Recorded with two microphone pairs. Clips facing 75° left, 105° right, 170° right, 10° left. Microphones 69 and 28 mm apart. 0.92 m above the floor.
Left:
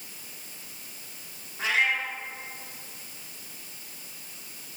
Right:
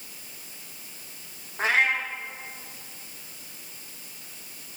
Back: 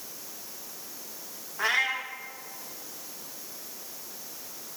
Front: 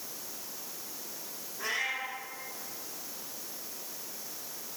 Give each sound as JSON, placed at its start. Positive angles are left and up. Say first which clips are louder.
{"t": 1.6, "sound": "a cat meowing", "louder": "right 3 dB, back 7 dB", "azimuth_deg": -150, "distance_m": 1.0}